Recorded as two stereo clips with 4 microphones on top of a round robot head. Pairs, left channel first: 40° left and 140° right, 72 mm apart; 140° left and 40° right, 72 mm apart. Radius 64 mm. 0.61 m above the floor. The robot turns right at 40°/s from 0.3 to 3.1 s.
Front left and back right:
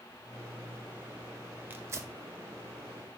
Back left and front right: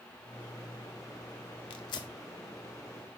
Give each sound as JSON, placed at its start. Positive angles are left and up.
{"t": 1.7, "sound": "tearing paper", "azimuth_deg": 150, "distance_m": 0.6}